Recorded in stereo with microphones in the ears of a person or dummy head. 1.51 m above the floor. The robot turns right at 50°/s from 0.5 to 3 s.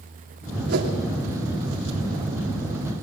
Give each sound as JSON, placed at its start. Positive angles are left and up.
{"t": 0.7, "sound": "a whoosh", "side_deg": -50, "distance_m": 2.5}